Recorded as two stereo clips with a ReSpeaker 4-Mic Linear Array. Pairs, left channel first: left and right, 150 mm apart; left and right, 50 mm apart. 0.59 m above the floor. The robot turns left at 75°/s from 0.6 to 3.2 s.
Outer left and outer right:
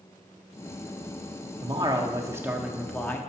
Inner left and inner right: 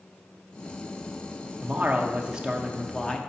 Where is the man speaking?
90° right, 0.6 m; by 3.2 s 150° left, 0.6 m.